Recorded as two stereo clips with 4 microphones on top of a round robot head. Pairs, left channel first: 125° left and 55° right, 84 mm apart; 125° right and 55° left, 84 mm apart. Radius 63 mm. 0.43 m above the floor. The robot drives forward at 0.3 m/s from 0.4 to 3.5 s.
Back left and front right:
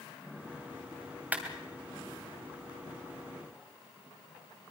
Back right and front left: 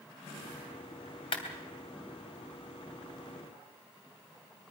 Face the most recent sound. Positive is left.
turn(degrees=-140)